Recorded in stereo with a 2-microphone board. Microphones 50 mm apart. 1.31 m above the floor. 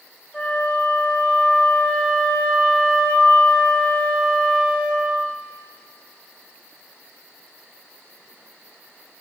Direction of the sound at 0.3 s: 20° left (ahead or behind).